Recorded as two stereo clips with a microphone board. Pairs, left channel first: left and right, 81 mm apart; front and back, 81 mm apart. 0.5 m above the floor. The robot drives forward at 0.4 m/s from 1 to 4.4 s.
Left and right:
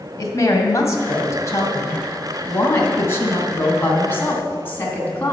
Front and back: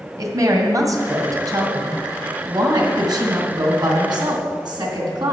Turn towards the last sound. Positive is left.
turn(degrees=155)